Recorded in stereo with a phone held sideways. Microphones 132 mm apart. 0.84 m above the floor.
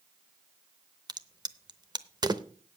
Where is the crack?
30° right (ahead or behind), 0.7 m.